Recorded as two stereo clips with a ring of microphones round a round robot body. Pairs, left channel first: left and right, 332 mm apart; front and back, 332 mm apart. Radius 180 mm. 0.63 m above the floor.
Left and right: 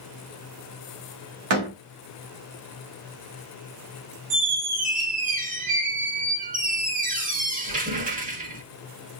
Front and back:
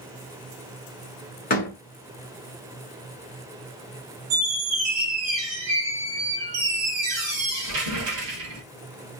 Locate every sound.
1.5 s a door slam: 65° right, 1.1 m
4.3 s a squeak: 160° right, 0.9 m